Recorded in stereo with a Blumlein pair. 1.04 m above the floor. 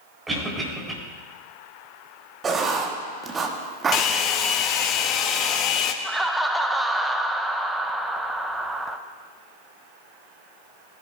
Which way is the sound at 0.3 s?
10° right.